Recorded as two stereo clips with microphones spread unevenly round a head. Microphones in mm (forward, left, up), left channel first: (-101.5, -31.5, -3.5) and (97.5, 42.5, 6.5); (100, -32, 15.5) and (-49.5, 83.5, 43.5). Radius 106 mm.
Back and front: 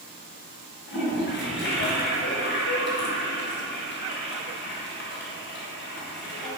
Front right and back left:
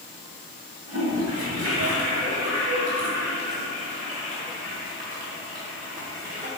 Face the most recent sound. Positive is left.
turn(degrees=180)